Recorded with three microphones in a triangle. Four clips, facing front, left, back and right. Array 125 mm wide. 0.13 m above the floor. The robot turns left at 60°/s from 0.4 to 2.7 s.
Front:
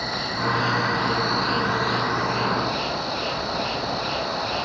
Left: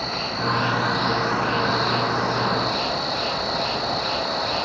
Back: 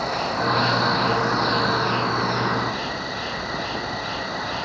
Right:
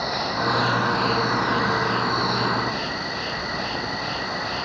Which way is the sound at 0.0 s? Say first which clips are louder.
Right 2 dB, back 3 dB; 155° right.